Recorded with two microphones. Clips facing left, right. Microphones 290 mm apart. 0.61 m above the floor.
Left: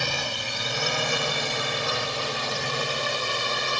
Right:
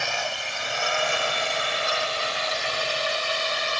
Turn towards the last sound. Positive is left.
turn(degrees=55)  # may be behind; listen again after turning